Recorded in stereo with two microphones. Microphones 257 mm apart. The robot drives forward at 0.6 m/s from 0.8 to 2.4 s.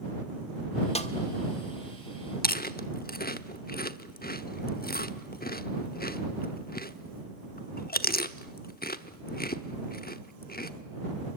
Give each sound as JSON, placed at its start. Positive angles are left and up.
{"t": 0.9, "sound": "a snare drum", "side_deg": 25, "distance_m": 1.5}
{"t": 2.4, "sound": "chewing", "side_deg": 35, "distance_m": 1.0}